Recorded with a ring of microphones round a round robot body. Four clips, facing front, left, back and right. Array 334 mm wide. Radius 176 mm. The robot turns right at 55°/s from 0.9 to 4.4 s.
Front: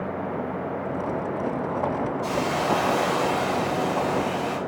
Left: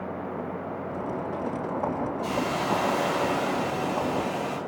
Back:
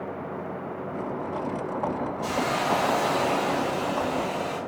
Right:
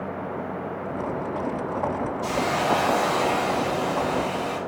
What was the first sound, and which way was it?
A hiss, 120° right.